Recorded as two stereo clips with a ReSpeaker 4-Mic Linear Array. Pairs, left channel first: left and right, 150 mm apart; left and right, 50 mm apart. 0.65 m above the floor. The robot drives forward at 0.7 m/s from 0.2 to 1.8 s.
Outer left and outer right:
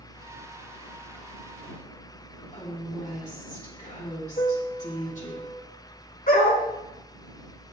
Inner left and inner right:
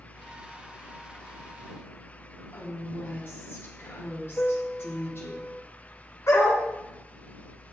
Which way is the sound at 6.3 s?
85° left.